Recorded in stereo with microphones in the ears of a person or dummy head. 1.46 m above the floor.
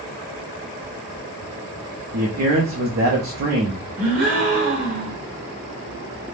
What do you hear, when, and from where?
2.1 s a man speaking: 50° right (ahead or behind), 0.5 m
4.0 s a gasp: 45° right (ahead or behind), 0.9 m